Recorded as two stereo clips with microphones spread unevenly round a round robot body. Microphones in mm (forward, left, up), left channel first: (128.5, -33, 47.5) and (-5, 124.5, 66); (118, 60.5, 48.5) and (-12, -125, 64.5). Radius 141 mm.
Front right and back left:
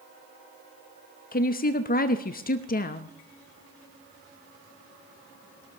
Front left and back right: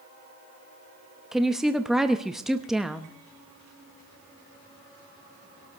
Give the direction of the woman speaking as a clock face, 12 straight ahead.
1 o'clock.